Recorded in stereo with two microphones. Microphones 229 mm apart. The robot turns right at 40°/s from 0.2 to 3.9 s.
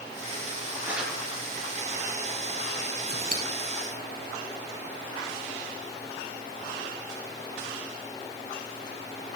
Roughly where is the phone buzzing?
No phone buzzing in this recording.